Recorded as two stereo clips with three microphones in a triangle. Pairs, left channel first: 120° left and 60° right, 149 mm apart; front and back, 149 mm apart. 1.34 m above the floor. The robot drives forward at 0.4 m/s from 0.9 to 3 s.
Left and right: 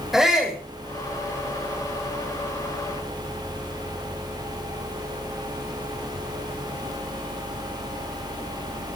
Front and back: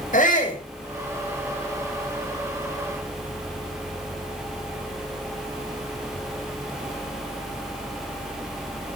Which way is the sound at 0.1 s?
30° left.